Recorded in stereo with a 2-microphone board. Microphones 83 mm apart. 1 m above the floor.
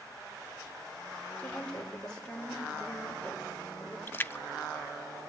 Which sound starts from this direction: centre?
A woman speaking, at 1.4 s.